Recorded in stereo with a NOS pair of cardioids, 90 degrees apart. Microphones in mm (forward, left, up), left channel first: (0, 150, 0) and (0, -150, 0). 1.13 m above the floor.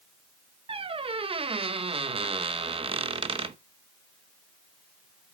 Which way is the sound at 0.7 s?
20° right.